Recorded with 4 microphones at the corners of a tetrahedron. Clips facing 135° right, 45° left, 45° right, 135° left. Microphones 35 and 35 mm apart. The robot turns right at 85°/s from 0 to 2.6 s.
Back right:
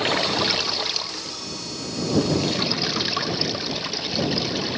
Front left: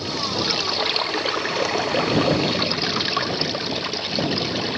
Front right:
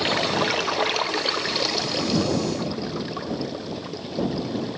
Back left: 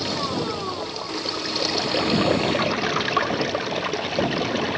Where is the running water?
100° right; by 4.8 s 120° left.